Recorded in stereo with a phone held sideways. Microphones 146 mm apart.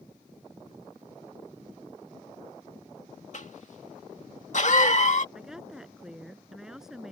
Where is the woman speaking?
5° right (ahead or behind).